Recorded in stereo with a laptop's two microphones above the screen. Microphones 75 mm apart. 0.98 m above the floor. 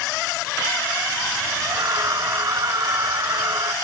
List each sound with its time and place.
1.6 s a scream: 45° right (ahead or behind)